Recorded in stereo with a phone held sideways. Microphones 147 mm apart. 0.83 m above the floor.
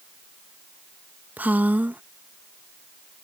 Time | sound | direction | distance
1.4 | a woman speaking | 10° right (ahead or behind) | ?